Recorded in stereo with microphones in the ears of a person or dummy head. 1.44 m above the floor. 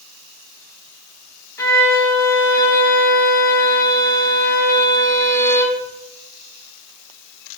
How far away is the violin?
About 2.0 m.